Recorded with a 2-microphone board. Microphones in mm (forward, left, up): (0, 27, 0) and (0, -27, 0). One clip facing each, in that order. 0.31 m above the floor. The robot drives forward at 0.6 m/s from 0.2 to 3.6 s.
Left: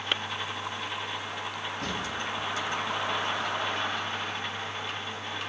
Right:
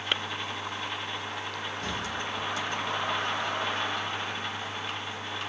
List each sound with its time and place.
1.8 s a drawer: 70° left (ahead or behind), 4 m